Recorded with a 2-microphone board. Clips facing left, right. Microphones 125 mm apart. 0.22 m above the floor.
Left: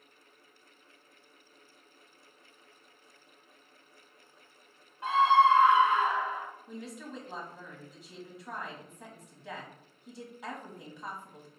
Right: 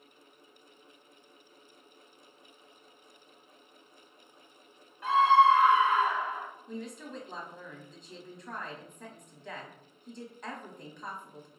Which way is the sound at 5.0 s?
25° left (ahead or behind).